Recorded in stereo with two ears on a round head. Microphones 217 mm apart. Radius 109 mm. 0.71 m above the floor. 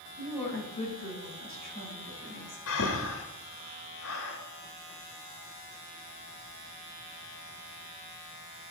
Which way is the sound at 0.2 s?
25° left (ahead or behind).